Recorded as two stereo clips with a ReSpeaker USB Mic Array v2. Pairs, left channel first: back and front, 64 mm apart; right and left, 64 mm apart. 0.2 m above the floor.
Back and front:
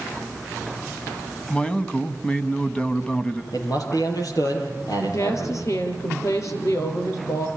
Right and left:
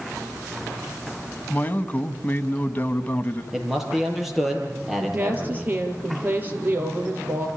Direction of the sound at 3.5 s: Straight behind.